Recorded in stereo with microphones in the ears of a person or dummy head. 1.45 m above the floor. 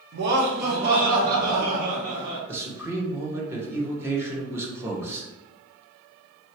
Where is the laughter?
65° right (ahead or behind), 1.0 m; by 2.4 s 40° right (ahead or behind), 2 m.